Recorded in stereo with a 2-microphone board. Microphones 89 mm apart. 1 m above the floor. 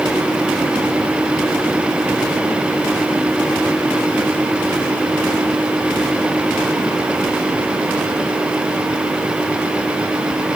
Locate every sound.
Only background noise.